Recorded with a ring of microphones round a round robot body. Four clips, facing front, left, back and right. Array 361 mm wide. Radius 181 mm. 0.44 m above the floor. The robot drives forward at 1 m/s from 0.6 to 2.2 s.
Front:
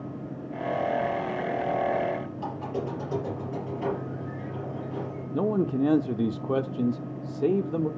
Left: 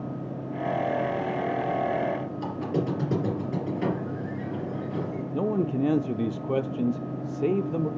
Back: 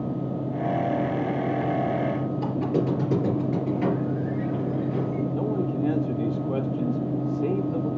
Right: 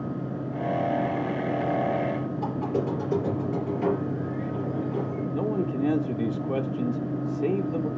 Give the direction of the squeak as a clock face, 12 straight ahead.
7 o'clock.